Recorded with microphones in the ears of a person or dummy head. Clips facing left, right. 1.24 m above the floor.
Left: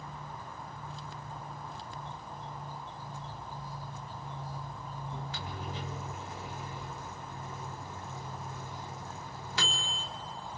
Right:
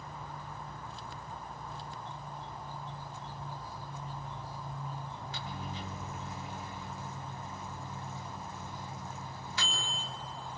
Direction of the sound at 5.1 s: 60° left (ahead or behind).